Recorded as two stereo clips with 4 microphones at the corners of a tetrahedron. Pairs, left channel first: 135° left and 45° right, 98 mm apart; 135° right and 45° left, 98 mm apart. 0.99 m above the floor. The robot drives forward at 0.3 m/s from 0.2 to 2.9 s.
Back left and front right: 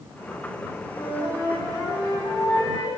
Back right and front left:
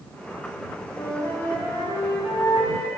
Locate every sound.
0.9 s a flute: 170° left, 4 m